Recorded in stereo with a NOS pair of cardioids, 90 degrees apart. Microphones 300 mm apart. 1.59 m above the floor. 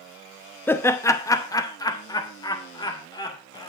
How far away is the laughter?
About 0.7 m.